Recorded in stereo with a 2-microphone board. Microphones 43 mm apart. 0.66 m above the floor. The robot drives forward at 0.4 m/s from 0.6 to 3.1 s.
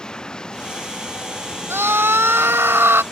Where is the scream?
75° right (ahead or behind).